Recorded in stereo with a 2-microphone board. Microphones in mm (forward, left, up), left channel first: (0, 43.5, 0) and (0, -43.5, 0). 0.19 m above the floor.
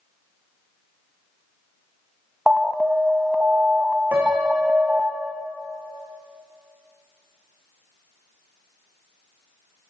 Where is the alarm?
10° right (ahead or behind), 1.0 m.